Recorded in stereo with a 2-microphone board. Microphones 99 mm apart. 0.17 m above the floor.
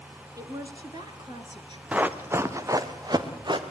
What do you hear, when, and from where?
0.4 s a woman speaking: 40° right (ahead or behind), 1.8 m; by 1.8 s 55° right (ahead or behind), 2.5 m
1.9 s running footsteps: 15° right (ahead or behind), 1.4 m; by 3.6 s 50° right (ahead or behind), 2 m